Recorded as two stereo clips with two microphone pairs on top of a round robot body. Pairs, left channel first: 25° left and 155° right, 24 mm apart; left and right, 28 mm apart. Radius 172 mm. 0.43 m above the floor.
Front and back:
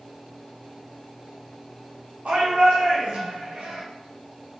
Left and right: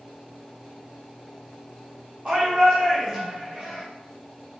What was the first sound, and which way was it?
A shout, 135° right.